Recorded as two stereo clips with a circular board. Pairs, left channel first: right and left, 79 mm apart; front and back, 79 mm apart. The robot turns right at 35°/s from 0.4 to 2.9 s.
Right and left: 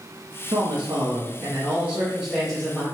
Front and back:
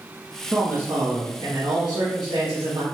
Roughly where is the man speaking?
Left.